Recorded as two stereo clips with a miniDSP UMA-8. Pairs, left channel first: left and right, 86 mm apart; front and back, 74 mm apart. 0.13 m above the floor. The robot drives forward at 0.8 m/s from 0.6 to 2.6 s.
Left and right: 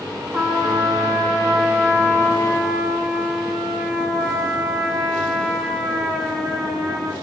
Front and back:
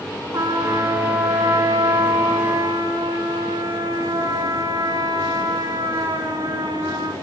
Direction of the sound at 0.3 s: 170° left.